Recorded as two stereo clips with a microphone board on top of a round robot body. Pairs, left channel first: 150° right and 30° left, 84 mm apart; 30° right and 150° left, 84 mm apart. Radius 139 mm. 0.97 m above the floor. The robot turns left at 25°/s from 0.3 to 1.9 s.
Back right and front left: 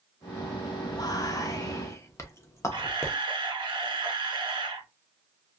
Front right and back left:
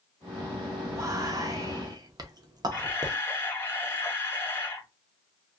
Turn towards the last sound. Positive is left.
turn(degrees=35)